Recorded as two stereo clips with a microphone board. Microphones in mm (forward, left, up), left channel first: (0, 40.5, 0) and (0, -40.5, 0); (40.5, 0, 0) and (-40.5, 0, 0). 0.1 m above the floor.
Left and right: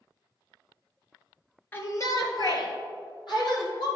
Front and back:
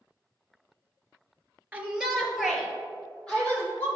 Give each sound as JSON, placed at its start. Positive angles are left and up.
{"t": 1.7, "sound": "a shout", "azimuth_deg": 125, "distance_m": 1.3}